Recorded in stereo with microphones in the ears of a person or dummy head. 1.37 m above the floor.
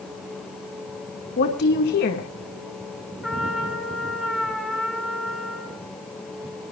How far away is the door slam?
I don't hear a door slam.